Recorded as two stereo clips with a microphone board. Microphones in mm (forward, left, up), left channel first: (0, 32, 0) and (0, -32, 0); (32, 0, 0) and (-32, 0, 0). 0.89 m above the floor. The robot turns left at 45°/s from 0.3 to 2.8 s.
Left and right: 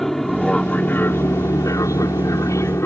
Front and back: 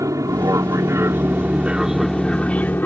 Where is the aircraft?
175° left; by 2.9 s 55° left.